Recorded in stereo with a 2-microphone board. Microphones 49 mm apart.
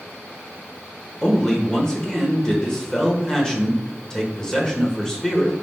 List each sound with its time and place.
1.2 s a man speaking: 15° left (ahead or behind), 1.0 m